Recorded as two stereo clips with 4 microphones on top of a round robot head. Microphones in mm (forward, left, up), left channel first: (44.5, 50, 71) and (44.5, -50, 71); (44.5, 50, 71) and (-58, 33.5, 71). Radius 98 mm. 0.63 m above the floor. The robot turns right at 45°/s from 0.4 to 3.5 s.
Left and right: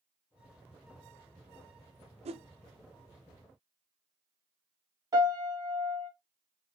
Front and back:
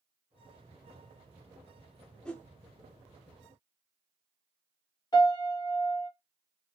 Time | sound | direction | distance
2.2 | a whoosh | 75° right | 0.5 m
5.1 | a piano | 40° right | 2.5 m